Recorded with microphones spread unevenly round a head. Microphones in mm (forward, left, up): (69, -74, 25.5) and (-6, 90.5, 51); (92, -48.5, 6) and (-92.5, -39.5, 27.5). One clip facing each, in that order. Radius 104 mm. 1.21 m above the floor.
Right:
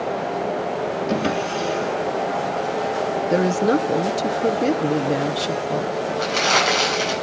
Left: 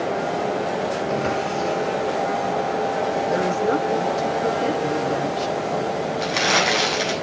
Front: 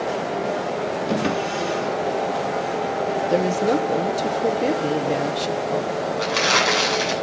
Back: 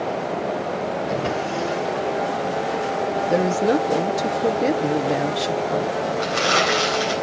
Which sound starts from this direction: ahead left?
Crumpling, at 6.2 s.